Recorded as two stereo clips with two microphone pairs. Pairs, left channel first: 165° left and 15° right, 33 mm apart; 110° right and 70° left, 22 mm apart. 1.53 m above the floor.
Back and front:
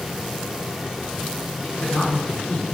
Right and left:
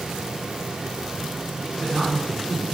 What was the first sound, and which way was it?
A man speaking, 110° left.